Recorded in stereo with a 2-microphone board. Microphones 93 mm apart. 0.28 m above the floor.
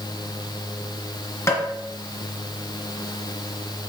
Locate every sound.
1.5 s tapping: 30° left (ahead or behind), 3 m